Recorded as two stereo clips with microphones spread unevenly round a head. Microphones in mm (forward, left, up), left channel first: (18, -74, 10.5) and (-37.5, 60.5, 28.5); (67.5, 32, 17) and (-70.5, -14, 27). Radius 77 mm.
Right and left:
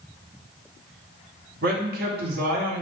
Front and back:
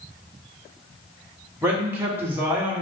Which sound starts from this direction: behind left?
A man speaking, at 1.6 s.